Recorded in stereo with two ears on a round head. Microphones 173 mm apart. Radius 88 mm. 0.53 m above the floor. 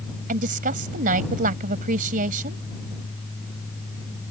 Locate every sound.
0.3 s a woman speaking: 50° right (ahead or behind)